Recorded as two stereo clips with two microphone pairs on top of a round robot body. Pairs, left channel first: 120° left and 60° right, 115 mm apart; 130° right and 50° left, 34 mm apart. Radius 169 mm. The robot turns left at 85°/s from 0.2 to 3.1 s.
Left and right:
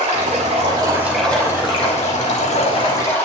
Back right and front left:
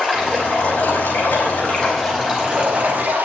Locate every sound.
0.0 s running water: 65° right, 5.5 m; by 3.2 s 45° left, 5.5 m